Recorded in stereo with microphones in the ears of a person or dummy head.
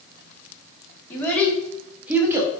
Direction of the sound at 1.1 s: 10° left (ahead or behind).